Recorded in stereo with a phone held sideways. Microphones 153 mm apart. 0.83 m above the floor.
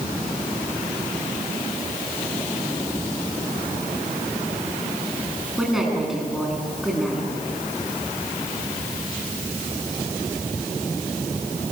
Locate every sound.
5.6 s a woman speaking: centre (ahead or behind), 9 m